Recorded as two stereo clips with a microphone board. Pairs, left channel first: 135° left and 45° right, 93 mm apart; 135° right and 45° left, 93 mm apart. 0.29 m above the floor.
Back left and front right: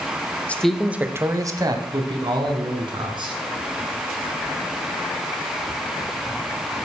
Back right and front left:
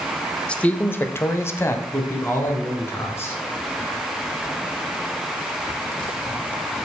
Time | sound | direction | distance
0.5 | a man speaking | 170° left | 0.9 m